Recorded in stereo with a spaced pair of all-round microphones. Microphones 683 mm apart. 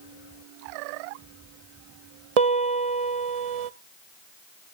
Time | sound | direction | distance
2.4 | a piano | 60° right (ahead or behind) | 0.6 m